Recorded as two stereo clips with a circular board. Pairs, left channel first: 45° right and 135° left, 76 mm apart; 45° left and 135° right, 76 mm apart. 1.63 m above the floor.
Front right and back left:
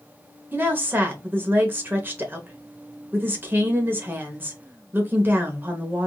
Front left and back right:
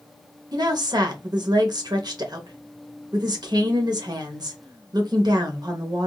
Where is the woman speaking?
160° right, 0.9 m.